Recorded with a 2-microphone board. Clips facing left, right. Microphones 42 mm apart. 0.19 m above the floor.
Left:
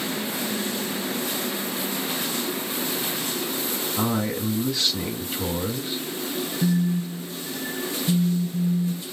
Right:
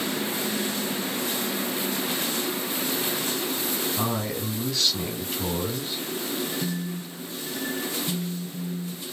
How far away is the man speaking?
About 1.3 m.